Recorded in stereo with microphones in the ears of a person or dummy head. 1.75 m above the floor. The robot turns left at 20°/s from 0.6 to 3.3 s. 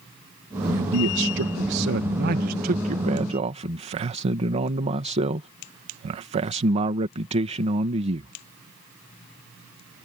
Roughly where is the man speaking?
Right.